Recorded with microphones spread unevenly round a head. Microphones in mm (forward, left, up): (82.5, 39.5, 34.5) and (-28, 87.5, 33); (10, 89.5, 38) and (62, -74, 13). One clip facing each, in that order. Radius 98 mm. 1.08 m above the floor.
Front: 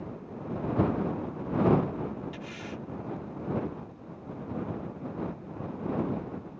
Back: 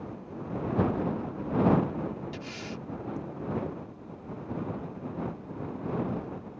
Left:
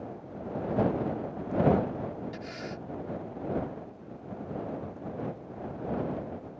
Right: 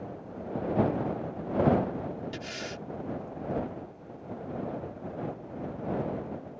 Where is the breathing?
135° right.